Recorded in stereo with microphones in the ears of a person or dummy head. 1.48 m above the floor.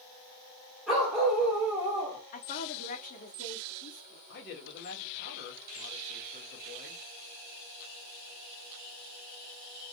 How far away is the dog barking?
About 2.5 m.